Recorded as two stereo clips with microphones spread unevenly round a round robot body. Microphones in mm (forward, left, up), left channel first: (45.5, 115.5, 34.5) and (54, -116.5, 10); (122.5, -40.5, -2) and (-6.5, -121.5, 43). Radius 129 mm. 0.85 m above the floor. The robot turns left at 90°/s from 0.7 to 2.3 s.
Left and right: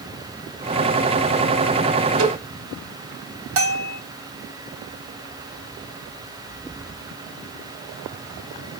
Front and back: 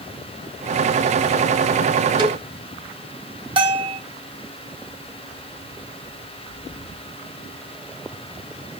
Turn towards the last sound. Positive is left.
turn(degrees=-90)